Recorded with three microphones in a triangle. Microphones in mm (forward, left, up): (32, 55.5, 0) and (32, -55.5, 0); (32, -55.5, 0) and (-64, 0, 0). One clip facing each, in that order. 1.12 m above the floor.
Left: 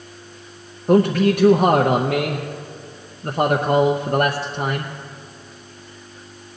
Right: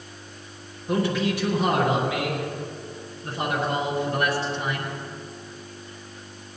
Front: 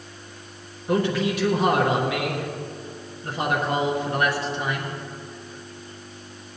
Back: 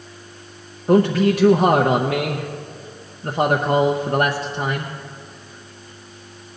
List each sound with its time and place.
0.9 s a man speaking: 110° left, 0.8 m